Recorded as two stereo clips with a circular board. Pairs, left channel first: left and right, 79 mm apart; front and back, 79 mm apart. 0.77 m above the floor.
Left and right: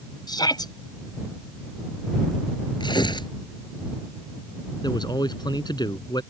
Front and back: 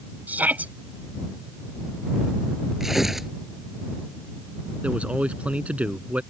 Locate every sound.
0.3 s a shout: 110° left
2.8 s tearing paper: 95° left
4.8 s a man speaking: 105° left